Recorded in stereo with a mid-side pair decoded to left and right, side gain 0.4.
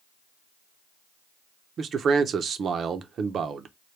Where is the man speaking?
60° right, 0.6 m.